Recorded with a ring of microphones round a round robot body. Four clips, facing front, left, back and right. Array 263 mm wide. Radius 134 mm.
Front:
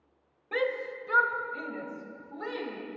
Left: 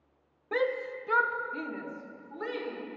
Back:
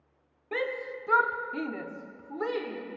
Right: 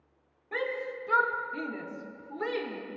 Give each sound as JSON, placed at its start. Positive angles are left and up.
{"t": 0.5, "sound": "a shout", "azimuth_deg": 115, "distance_m": 0.9}